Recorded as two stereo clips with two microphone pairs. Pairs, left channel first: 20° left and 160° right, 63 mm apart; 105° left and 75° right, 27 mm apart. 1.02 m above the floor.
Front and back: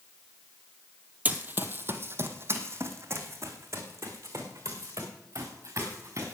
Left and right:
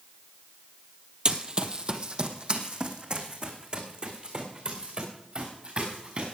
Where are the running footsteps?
115° right, 1.3 m; by 6.3 s 125° right, 5.5 m.